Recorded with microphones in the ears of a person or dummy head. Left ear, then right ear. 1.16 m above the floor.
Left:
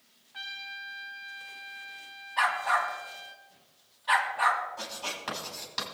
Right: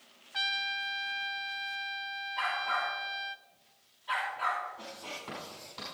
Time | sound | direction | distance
0.3 | a trumpet | 45° right (ahead or behind) | 0.5 m
2.4 | a dog barking | 50° left (ahead or behind) | 1.9 m
4.8 | writing | 65° left (ahead or behind) | 5.5 m